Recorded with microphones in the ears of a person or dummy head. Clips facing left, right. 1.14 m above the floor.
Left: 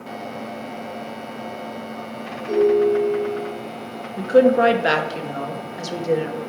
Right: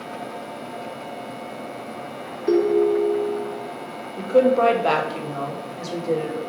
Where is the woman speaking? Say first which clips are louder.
Left 2 dB; 15° left (ahead or behind), 0.8 m.